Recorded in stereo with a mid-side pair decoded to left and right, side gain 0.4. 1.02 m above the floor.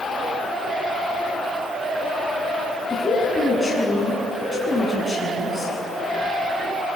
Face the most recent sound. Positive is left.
turn(degrees=20)